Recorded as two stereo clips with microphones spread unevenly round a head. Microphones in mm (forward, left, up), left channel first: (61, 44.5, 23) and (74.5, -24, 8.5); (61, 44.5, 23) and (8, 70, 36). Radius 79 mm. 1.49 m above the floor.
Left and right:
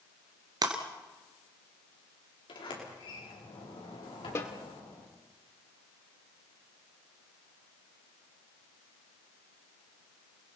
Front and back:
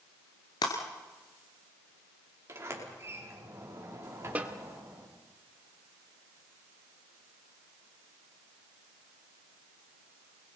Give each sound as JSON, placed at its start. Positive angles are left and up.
{"t": 0.6, "sound": "breaking glass", "azimuth_deg": -60, "distance_m": 2.5}
{"t": 2.5, "sound": "a sliding door", "azimuth_deg": 115, "distance_m": 4.5}
{"t": 4.3, "sound": "a snare drum", "azimuth_deg": 120, "distance_m": 1.4}